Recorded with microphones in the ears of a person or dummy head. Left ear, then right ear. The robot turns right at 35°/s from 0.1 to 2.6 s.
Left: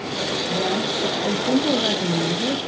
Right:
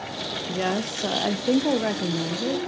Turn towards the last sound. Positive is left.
turn(degrees=-5)